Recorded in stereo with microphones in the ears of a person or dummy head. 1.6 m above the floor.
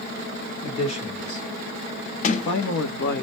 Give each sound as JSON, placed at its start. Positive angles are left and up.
{"t": 0.6, "sound": "a man speaking", "side_deg": 30, "distance_m": 1.3}
{"t": 2.2, "sound": "a sliding door", "side_deg": 45, "distance_m": 0.7}